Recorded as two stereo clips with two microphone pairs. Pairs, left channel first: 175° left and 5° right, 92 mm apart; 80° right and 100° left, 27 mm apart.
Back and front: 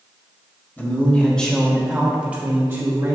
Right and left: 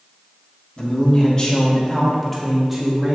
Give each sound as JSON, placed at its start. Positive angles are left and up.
{"t": 0.8, "sound": "a man speaking", "azimuth_deg": -120, "distance_m": 1.9}